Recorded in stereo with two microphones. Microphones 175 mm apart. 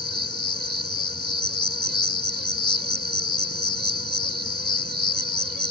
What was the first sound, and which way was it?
An insect, 80° right.